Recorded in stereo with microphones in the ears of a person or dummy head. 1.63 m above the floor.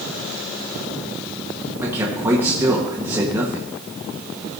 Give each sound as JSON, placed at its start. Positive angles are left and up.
{"t": 1.8, "sound": "a man speaking", "side_deg": -20, "distance_m": 1.3}